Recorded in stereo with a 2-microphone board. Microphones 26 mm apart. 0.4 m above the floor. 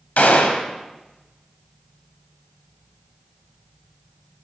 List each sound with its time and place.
0.2 s a gunshot: 80° left, 0.8 m